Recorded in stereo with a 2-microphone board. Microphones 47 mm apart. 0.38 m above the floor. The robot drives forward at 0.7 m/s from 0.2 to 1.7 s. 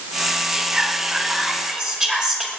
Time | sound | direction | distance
0.5 | whispering | 20° right (ahead or behind) | 0.9 m